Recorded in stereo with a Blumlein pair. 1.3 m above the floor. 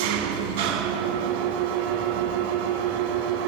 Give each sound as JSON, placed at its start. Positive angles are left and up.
{"t": 0.0, "sound": "an engine running", "azimuth_deg": -45, "distance_m": 1.2}